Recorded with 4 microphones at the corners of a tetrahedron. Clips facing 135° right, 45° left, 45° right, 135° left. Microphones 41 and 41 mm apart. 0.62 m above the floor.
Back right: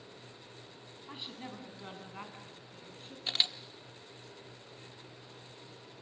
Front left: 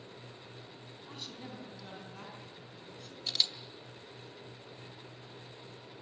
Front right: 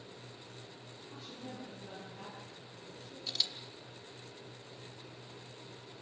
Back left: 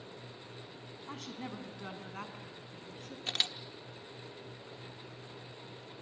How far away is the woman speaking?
About 4 m.